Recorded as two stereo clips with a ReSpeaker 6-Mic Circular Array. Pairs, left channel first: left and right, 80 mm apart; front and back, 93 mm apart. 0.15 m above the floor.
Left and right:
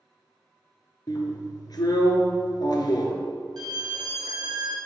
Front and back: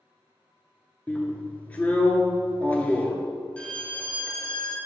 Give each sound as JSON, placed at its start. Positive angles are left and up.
{"t": 1.1, "sound": "a drill", "azimuth_deg": 70, "distance_m": 1.1}
{"t": 3.6, "sound": "a violin", "azimuth_deg": -75, "distance_m": 0.9}